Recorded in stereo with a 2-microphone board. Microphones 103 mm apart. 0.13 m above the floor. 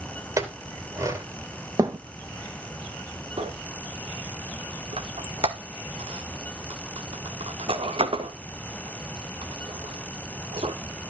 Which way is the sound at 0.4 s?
30° right (ahead or behind).